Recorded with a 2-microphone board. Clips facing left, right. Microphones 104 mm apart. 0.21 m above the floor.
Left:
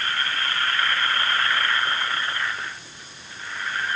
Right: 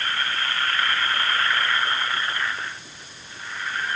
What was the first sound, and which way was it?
Only background noise.